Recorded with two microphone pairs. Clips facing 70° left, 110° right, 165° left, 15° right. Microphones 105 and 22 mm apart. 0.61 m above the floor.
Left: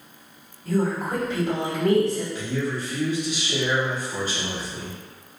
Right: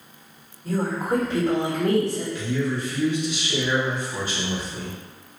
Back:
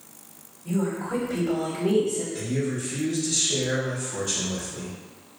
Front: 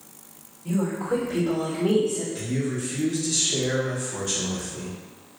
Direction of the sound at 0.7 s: 55° right.